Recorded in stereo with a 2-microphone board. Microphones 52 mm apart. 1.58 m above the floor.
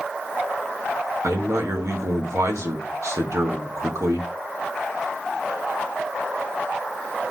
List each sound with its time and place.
1.2 s a man speaking: 75° right (ahead or behind), 1.5 m